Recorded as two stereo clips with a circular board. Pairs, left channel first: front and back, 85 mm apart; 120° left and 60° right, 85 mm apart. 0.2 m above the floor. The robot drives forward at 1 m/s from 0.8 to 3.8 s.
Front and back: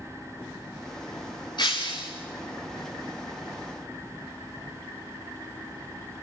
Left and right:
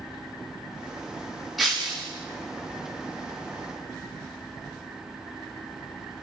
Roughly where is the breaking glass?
Ahead left.